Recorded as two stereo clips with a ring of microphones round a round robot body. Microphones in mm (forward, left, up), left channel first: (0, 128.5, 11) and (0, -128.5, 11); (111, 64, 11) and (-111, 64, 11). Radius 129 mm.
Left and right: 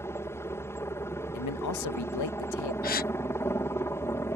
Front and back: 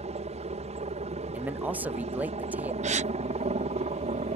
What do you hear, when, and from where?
0.0 s a helicopter: 160° left
1.3 s a man speaking: 95° left
2.8 s a gasp: 130° left